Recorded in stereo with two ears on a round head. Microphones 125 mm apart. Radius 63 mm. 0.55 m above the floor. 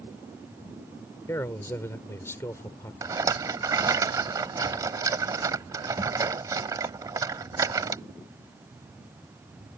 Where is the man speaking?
20° left (ahead or behind).